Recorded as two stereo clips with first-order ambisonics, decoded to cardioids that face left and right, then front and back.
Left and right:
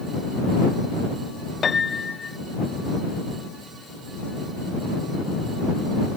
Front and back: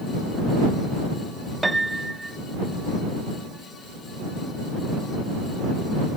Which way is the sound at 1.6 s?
115° left.